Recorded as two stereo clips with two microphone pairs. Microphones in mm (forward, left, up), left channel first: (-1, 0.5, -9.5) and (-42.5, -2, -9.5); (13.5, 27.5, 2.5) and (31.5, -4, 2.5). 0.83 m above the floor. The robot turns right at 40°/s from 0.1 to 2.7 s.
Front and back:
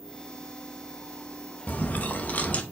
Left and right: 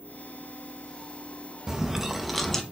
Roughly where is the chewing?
Ahead.